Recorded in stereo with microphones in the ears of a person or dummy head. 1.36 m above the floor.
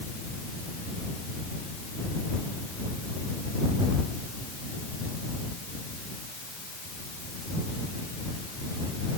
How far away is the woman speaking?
I don't hear a woman speaking.